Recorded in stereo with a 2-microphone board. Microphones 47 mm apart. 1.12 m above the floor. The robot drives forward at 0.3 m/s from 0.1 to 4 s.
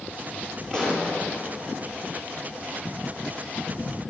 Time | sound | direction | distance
0.7 | a pop | 10° left (ahead or behind) | 9.5 m